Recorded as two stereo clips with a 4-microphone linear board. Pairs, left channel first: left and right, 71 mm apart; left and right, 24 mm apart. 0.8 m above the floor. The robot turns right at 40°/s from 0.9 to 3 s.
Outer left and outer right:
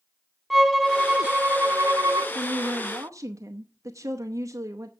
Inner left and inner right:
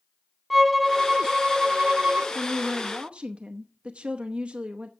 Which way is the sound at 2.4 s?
45° right (ahead or behind).